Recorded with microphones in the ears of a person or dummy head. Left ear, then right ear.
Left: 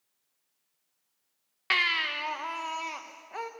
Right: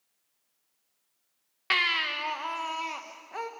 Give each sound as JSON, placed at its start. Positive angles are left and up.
{"t": 1.7, "sound": "a baby crying", "side_deg": 10, "distance_m": 1.0}